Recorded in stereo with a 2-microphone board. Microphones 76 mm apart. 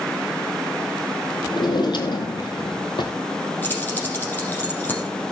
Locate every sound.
1.5 s a drawer: 75° left (ahead or behind), 1.7 m
3.6 s keys jangling: 25° left (ahead or behind), 4.5 m